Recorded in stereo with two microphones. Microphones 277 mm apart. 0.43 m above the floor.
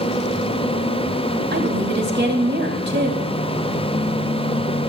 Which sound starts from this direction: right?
A woman speaking, at 1.5 s.